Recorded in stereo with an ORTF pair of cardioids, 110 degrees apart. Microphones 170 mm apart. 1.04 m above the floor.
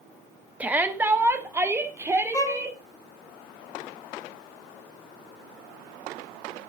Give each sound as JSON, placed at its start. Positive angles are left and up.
{"t": 0.6, "sound": "a shout", "azimuth_deg": -10, "distance_m": 1.2}
{"t": 2.3, "sound": "a violin", "azimuth_deg": 20, "distance_m": 1.5}